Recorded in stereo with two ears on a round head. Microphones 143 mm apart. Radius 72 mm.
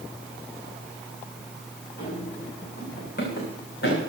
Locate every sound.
2.0 s running footsteps: 60° left (ahead or behind), 8.5 m; by 4.0 s 70° left (ahead or behind), 8.5 m